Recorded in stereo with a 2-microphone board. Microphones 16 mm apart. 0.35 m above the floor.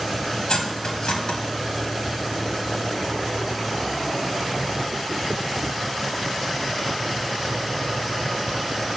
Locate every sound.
0.5 s cutlery clinking: 65° left (ahead or behind), 1.2 m